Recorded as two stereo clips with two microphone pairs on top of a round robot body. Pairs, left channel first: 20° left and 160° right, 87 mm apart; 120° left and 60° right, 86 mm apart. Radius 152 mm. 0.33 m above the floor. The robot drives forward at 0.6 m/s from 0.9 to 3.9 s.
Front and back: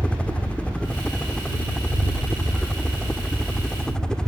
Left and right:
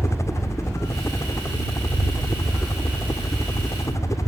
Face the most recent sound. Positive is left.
turn(degrees=95)